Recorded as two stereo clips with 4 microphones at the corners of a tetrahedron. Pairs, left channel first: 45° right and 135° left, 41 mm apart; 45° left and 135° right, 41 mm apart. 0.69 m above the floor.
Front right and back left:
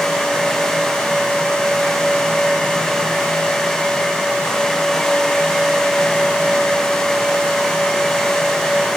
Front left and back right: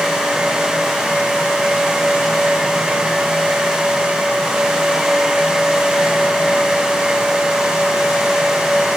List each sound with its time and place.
Only background noise.